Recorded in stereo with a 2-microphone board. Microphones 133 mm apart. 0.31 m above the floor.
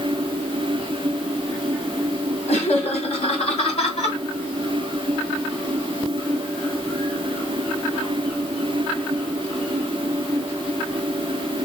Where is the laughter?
55° left (ahead or behind), 3 m.